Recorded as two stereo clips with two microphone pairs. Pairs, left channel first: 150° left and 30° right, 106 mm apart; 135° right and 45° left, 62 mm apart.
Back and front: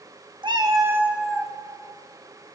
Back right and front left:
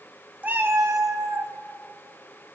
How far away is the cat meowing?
About 0.7 m.